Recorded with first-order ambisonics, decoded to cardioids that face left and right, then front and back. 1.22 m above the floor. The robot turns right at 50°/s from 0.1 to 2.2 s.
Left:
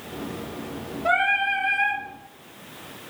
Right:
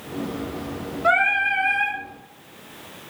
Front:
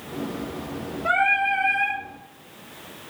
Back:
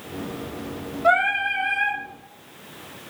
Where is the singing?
125° right, 1.4 m; by 2.0 s 75° right, 1.4 m.